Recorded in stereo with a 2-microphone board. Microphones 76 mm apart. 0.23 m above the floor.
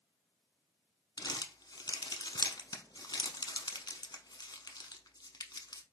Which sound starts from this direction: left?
Crumpling, at 1.2 s.